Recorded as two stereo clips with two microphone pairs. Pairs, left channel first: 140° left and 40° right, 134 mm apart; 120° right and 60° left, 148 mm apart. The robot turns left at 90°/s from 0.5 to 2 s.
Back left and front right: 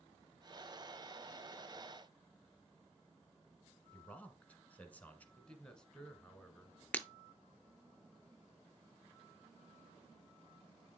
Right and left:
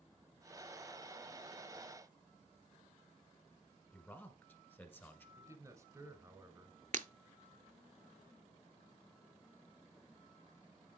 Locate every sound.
3.9 s a man speaking: 170° right, 1.1 m
5.4 s a man speaking: 70° left, 1.3 m
6.9 s breaking glass: 65° left, 0.6 m